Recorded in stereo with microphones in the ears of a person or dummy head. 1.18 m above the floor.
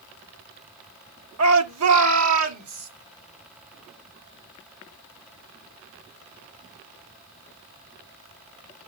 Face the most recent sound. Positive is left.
turn(degrees=-85)